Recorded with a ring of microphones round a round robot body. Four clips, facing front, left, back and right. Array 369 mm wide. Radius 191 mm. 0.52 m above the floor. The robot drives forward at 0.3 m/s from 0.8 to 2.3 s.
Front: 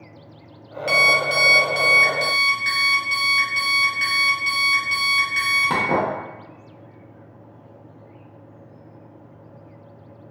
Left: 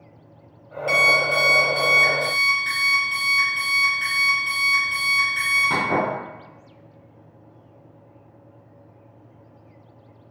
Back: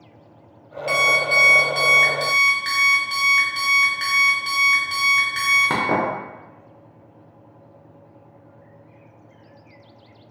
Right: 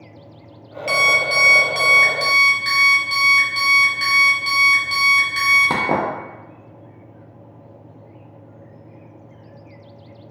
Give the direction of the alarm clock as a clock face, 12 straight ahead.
2 o'clock.